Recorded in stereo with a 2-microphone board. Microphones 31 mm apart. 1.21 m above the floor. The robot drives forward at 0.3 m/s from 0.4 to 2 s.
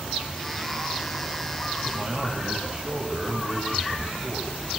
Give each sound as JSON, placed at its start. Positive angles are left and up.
{"t": 1.9, "sound": "a man speaking", "side_deg": -35, "distance_m": 8.5}